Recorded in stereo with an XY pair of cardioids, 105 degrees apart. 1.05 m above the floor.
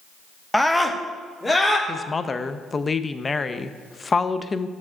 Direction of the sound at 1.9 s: 30° left.